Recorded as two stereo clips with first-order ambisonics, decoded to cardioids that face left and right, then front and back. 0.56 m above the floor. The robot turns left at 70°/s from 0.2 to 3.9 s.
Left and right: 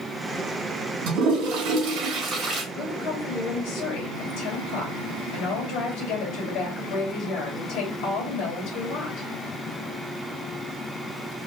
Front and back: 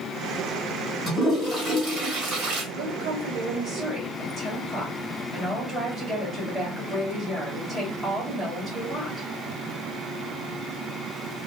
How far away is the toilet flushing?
About 2.5 m.